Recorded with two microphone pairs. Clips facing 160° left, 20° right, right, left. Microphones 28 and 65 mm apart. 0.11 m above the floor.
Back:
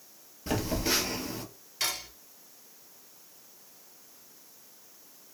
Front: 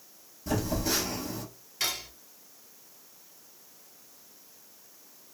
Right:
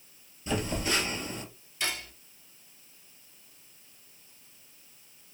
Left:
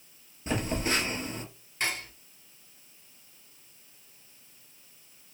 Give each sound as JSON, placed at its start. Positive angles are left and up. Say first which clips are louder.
{"t": 0.5, "sound": "a phone buzzing", "louder": "even, left 1 dB", "azimuth_deg": 125, "distance_m": 1.1}
{"t": 1.8, "sound": "cutlery clinking", "louder": "front 1 dB, left 2 dB", "azimuth_deg": 75, "distance_m": 1.6}